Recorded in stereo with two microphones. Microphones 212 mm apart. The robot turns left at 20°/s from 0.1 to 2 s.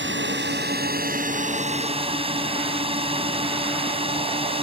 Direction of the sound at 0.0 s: 115° right.